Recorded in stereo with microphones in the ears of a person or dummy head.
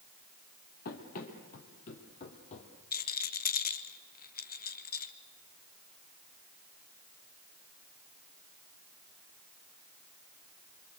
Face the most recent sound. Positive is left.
turn(degrees=45)  # may be behind; listen again after turning